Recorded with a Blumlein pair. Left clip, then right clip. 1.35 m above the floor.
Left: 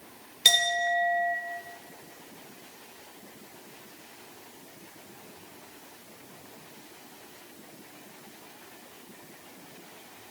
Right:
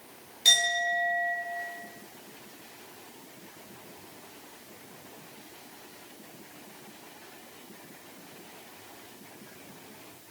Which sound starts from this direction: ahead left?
A clink, at 0.5 s.